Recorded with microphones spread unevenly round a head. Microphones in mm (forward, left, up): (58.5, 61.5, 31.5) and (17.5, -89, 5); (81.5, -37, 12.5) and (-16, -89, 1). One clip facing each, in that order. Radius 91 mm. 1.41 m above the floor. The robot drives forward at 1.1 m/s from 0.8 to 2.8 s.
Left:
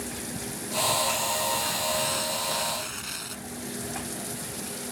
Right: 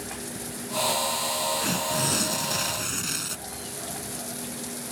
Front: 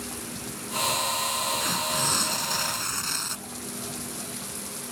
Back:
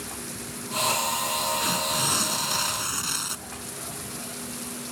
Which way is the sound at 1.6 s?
65° right.